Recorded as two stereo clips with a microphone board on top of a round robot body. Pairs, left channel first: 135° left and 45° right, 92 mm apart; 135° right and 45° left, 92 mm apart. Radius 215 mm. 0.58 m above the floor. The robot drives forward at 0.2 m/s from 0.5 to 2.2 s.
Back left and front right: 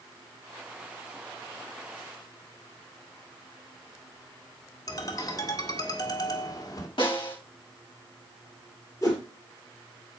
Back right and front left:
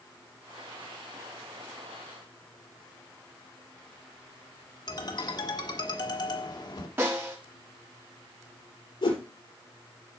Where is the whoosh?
170° right, 3 m.